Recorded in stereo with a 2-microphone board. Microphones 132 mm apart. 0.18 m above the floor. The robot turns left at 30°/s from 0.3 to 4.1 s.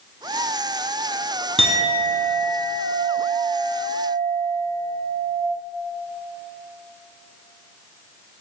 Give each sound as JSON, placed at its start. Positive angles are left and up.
{"t": 1.6, "sound": "a clink", "azimuth_deg": -90, "distance_m": 0.8}